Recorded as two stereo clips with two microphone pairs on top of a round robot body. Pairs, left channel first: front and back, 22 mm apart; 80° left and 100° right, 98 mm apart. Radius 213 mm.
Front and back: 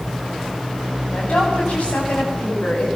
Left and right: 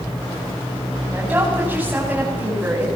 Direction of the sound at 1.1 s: 25° right.